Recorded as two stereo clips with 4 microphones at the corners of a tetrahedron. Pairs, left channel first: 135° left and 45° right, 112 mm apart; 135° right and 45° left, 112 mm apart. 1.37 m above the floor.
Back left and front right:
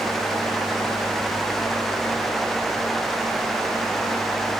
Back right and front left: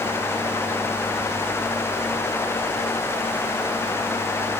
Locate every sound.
Only background noise.